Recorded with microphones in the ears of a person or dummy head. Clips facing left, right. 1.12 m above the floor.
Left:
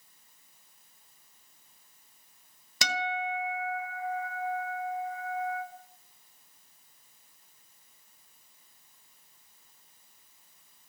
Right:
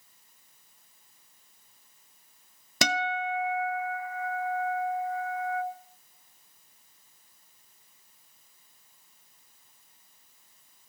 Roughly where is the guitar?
Right.